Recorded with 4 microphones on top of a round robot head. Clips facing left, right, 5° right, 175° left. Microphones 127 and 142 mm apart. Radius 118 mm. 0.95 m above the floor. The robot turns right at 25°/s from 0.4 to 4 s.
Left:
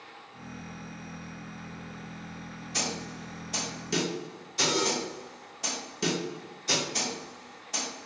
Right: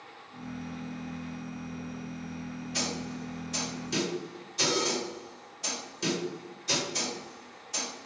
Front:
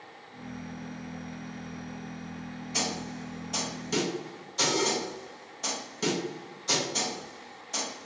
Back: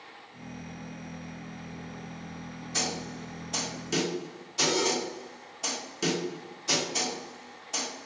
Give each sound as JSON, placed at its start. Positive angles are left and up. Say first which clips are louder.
{"t": 2.7, "sound": "a snare drum", "louder": "even, even", "azimuth_deg": 65, "distance_m": 1.1}